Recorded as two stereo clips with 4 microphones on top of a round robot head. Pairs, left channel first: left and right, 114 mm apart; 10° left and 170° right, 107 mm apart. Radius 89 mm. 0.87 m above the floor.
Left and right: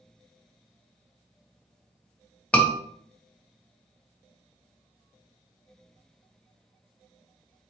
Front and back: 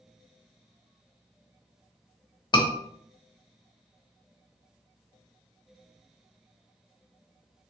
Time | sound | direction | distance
2.5 | a scream | 15° left | 1.2 m